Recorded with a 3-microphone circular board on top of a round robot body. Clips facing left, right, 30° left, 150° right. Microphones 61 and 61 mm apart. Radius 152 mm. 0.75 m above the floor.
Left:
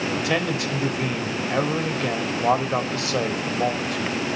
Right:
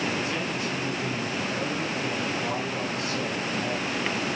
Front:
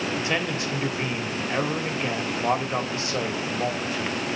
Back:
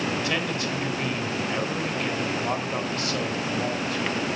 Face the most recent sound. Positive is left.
turn(degrees=95)